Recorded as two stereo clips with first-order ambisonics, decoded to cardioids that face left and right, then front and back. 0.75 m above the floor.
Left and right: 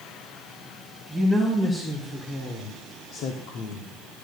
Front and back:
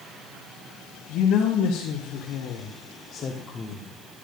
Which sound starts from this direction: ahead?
A woman speaking, at 1.1 s.